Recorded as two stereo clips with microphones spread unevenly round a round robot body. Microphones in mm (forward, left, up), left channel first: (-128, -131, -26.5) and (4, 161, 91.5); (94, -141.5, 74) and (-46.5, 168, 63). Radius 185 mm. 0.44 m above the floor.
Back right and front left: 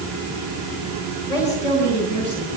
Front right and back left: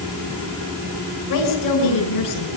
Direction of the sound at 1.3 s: 40° right.